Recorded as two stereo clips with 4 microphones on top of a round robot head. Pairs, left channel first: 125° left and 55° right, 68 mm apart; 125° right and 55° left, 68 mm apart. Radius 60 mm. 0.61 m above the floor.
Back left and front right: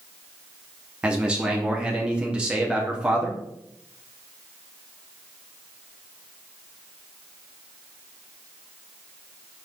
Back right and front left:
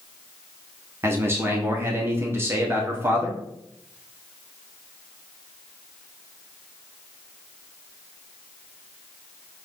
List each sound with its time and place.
1.0 s a man speaking: 15° left, 1.3 m